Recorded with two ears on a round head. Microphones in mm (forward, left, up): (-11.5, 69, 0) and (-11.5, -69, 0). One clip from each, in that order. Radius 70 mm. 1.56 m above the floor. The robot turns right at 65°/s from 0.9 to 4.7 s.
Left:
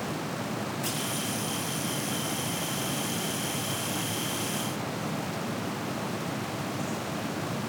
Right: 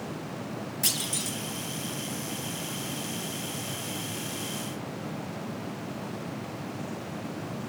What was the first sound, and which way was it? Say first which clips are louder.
A clunk: right 5 dB; 95° right.